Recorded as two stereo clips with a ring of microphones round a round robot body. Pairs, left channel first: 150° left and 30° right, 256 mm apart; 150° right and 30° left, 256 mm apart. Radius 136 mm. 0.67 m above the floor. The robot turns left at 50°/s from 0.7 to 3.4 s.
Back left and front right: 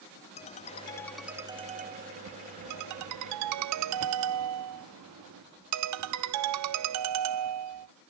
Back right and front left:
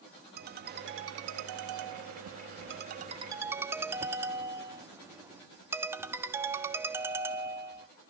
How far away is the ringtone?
About 0.5 m.